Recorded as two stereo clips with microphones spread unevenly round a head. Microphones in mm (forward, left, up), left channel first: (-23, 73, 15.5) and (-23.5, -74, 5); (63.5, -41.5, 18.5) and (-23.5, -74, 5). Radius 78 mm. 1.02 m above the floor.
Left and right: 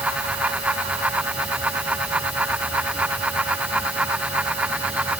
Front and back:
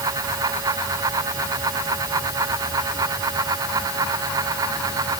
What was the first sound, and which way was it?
Only background noise.